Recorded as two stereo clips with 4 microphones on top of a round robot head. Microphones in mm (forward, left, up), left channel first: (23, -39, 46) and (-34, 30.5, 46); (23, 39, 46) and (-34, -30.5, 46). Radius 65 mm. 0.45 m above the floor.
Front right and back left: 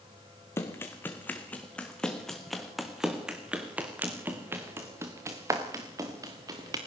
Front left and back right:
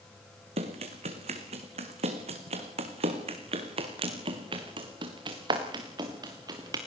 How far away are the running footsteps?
About 2.5 m.